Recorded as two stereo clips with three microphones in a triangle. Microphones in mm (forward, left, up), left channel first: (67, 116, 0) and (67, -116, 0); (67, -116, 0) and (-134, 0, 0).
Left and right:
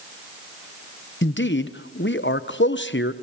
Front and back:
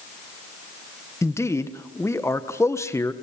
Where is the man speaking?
50° left, 1.2 m.